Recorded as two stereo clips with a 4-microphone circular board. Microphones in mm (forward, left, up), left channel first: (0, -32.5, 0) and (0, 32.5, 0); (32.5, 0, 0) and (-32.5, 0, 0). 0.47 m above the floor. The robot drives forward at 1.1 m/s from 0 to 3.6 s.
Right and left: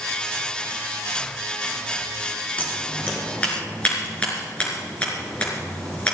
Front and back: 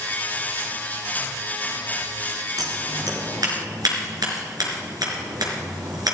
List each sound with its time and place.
2.6 s scissors: 160° right, 4 m; by 6.2 s 165° right, 5 m